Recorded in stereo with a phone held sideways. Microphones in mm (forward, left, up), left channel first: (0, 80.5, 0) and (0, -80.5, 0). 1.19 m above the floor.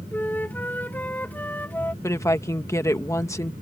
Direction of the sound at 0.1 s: 10° left (ahead or behind).